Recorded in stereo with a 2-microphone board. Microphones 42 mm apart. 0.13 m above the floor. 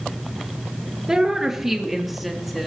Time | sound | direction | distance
1.1 | a woman speaking | 15° right (ahead or behind) | 2.0 m